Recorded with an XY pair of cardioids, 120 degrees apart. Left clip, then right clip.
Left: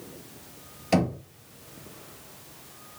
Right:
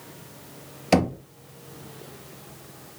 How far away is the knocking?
About 1.2 m.